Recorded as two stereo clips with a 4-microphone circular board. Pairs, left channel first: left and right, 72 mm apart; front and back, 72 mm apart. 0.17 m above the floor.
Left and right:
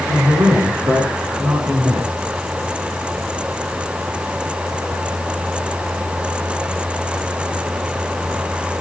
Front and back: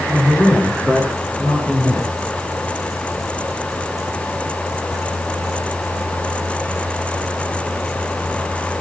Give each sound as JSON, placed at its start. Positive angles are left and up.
{"t": 0.1, "sound": "a man speaking", "azimuth_deg": -75, "distance_m": 9.0}